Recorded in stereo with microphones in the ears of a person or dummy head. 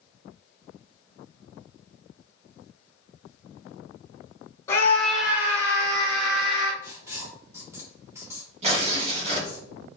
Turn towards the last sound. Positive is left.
turn(degrees=-40)  # may be behind; listen again after turning